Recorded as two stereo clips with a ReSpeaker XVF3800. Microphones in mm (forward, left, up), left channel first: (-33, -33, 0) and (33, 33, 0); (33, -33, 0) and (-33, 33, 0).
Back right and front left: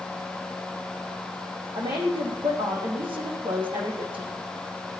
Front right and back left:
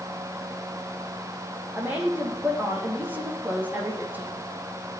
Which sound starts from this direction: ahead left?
A woman speaking, at 1.8 s.